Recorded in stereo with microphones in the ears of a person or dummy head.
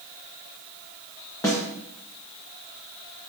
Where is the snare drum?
10° left (ahead or behind), 1.8 m.